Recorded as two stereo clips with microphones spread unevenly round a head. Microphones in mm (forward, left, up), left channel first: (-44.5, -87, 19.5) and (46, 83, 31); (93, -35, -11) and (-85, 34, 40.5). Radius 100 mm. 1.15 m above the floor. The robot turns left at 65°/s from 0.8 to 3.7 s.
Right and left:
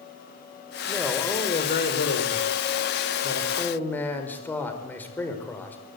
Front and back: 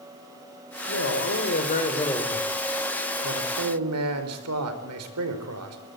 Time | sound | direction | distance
0.9 | a man speaking | 15° right | 5 m